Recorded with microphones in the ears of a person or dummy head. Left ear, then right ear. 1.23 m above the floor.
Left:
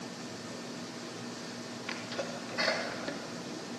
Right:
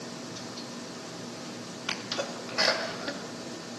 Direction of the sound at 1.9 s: 15° right (ahead or behind).